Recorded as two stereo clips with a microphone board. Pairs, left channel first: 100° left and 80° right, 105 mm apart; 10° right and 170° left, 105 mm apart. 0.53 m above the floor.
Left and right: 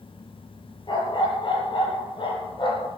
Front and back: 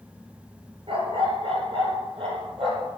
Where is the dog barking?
140° left, 3.5 m.